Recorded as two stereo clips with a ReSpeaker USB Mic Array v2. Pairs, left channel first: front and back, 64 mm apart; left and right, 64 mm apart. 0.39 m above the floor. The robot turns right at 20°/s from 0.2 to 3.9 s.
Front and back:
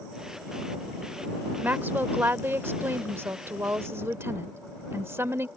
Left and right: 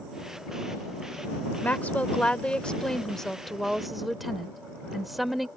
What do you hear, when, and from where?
1.6 s a woman speaking: 140° left; by 5.5 s 175° right